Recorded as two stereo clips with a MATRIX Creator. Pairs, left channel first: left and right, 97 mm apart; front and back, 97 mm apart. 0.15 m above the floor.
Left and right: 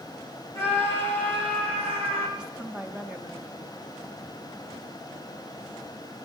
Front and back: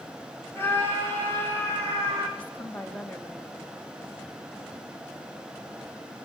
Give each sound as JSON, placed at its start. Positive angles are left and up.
{"t": 0.6, "sound": "a scream", "azimuth_deg": -65, "distance_m": 5.5}
{"t": 2.4, "sound": "a woman speaking", "azimuth_deg": -30, "distance_m": 1.0}